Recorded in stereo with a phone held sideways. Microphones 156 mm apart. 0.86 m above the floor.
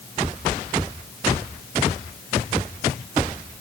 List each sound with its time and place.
Only background noise.